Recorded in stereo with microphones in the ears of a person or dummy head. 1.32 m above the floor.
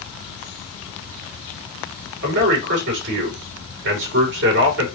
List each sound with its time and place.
2.2 s a man speaking: 60° right (ahead or behind), 3 m